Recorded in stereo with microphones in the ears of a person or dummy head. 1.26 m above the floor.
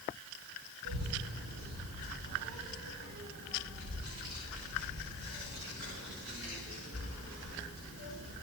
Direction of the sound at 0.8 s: 75° right (ahead or behind).